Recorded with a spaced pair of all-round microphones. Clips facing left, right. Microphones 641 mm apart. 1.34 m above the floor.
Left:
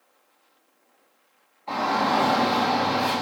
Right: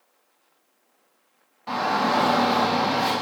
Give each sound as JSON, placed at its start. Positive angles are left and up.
{"t": 1.7, "sound": "a shout", "side_deg": -85, "distance_m": 2.5}